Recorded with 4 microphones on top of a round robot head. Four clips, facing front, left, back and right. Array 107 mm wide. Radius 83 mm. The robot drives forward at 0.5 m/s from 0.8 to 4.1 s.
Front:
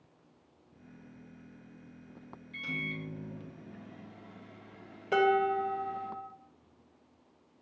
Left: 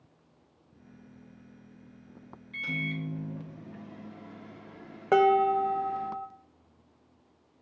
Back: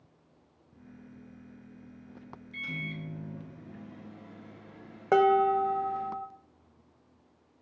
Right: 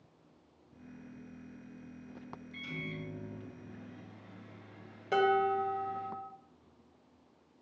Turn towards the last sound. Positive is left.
turn(degrees=140)